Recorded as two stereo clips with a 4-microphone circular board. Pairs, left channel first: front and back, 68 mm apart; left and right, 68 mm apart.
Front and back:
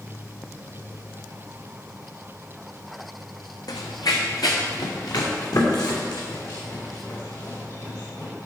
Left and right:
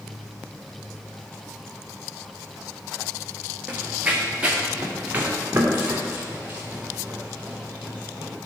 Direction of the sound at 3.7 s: 20° right.